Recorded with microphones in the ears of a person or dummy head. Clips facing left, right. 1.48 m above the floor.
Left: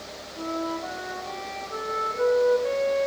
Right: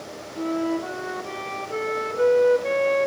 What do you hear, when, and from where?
0.4 s a flute: 35° right (ahead or behind), 1.0 m